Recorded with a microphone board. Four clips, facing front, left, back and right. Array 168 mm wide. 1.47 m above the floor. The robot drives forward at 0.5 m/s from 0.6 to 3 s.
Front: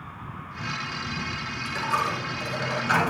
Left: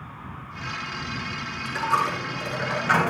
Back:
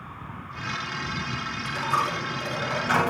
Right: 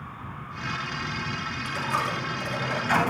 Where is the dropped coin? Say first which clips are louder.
Left 5 dB, even; 100° left, 5.5 m; by 3.1 s 105° left, 5.5 m.